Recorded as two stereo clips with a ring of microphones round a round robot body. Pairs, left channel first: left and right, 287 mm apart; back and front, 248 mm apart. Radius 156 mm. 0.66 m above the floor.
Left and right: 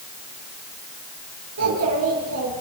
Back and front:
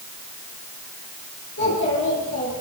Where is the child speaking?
125° right, 6.5 m; by 2.6 s 135° right, 7.5 m.